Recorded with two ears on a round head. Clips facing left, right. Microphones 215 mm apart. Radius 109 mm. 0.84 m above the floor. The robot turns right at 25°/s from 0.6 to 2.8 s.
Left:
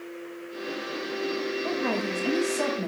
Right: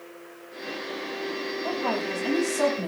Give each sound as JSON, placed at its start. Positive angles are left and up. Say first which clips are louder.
{"t": 1.6, "sound": "a woman speaking", "louder": "right 2 dB", "side_deg": 25, "distance_m": 5.5}